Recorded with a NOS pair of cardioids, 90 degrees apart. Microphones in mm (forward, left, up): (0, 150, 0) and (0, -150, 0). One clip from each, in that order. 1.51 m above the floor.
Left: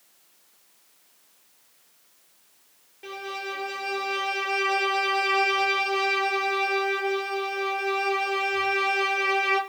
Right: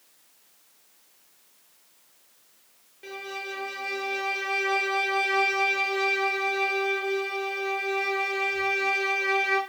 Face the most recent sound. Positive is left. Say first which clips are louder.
# left 2 dB
turn(degrees=15)